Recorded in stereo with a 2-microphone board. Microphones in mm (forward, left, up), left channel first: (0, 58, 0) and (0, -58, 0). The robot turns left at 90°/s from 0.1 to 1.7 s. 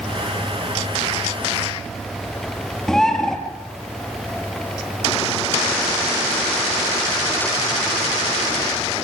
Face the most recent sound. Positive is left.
turn(degrees=5)  # may be behind; listen again after turning